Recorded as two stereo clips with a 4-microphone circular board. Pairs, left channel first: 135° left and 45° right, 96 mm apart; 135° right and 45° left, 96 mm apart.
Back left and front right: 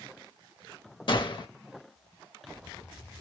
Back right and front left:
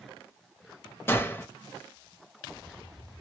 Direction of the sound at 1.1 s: 160° left.